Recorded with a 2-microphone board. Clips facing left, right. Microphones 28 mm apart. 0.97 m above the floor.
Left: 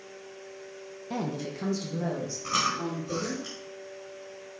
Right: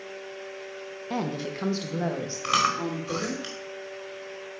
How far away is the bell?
No bell in this recording.